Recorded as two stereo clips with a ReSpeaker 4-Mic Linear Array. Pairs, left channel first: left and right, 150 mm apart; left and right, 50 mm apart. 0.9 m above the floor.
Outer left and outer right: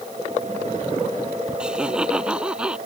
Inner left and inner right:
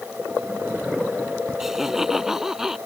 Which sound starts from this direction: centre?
Laughter, at 1.6 s.